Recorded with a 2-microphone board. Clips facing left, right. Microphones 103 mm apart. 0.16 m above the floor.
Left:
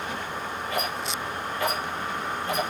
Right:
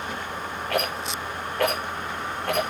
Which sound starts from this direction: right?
A rattle, at 0.7 s.